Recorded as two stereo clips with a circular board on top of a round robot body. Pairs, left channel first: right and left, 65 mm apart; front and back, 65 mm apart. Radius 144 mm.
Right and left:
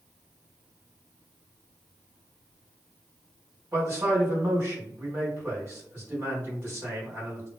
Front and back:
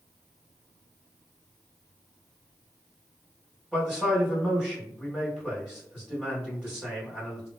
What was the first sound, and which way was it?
A man speaking, 105° left.